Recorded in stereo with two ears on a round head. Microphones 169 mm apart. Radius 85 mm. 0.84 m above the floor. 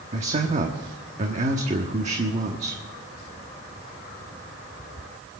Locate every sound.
0.1 s a man speaking: 40° right (ahead or behind), 1.2 m